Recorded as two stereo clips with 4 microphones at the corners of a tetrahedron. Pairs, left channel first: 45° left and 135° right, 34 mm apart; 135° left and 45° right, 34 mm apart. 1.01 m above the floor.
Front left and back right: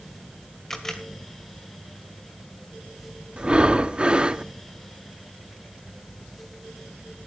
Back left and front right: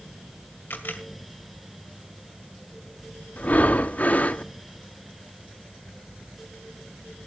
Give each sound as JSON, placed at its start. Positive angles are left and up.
{"t": 0.7, "sound": "a camera shutter", "azimuth_deg": 120, "distance_m": 2.0}
{"t": 3.4, "sound": "breathing", "azimuth_deg": 170, "distance_m": 0.7}